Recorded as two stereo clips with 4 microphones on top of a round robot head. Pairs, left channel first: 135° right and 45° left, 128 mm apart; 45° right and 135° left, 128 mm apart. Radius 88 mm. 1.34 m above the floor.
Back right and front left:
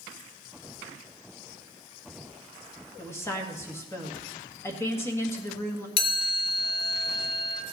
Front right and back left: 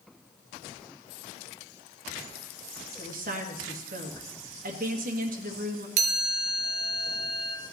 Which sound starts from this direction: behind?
A chime, at 6.0 s.